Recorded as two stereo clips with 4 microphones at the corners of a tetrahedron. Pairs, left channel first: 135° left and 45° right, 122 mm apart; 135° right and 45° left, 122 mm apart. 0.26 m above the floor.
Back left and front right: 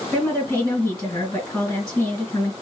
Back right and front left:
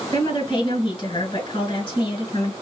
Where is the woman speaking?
160° right, 2 m.